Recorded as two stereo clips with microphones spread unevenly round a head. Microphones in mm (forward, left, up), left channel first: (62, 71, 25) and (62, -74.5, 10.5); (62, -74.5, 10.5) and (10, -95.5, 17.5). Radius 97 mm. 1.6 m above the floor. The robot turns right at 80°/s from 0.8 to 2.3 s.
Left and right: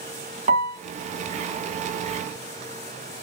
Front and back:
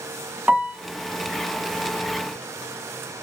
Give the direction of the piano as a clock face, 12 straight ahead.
4 o'clock.